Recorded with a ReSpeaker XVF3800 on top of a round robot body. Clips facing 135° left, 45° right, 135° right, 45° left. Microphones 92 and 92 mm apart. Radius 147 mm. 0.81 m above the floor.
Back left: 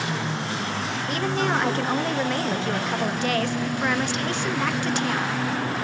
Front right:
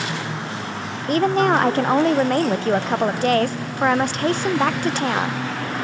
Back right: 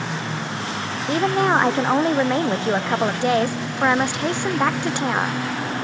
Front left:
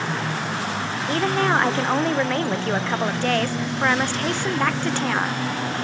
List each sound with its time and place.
1.1 s a woman speaking: 70° right, 0.5 m